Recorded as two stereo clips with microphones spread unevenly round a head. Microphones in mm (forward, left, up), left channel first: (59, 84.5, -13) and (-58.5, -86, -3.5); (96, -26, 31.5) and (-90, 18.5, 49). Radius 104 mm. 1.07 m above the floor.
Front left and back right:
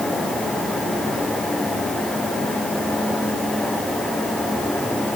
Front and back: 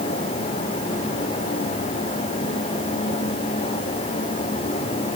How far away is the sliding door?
No sliding door in this recording.